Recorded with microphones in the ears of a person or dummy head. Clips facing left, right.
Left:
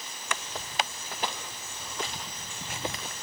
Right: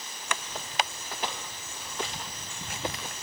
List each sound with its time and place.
Only background noise.